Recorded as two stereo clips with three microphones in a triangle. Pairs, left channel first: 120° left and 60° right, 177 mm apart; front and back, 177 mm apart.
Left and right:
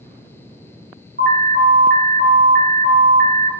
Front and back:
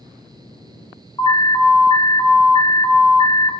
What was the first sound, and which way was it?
An alarm, 65° right.